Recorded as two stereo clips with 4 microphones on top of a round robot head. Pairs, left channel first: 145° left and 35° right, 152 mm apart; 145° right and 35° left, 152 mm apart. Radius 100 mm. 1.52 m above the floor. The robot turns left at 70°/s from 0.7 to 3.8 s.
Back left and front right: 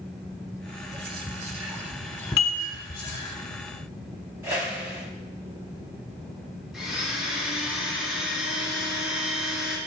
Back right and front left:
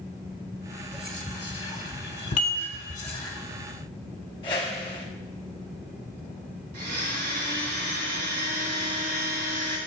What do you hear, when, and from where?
0.9 s whispering: 45° right, 1.3 m; by 3.4 s 145° left, 1.3 m
2.4 s dishes clattering: 170° left, 1.9 m; by 2.6 s 150° left, 1.9 m
4.4 s a whoosh: 95° right, 1.2 m
6.7 s a blender: 55° left, 2.5 m